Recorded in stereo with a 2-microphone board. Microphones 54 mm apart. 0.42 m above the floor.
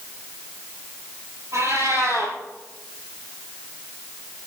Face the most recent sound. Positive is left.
turn(degrees=-60)  # may be behind; listen again after turning